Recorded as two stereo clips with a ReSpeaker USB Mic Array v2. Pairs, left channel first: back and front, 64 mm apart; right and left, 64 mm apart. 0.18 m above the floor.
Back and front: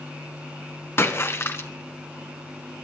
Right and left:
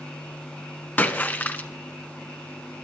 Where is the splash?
145° right, 1.4 m.